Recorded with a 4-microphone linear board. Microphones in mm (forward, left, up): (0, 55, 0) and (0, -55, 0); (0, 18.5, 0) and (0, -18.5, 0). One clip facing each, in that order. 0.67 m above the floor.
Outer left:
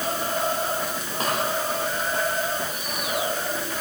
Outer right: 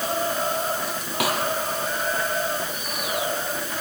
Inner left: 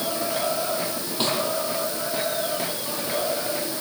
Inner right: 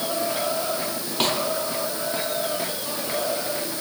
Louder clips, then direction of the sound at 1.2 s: Outer right 2 dB, inner right 2 dB; 85° right.